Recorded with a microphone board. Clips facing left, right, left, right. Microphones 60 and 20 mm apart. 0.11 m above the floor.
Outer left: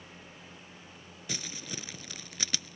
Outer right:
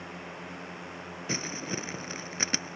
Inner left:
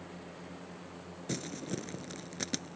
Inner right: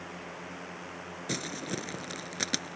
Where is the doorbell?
No doorbell in this recording.